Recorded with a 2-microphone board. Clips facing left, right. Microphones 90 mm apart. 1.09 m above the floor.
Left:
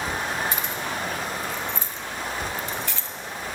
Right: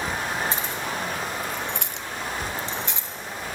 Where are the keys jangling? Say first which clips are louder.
Even; 35° right (ahead or behind), 1.6 m; by 3.1 s 15° right (ahead or behind), 1.1 m.